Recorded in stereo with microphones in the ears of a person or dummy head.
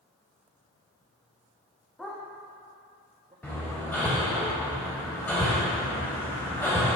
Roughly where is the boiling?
I don't hear boiling.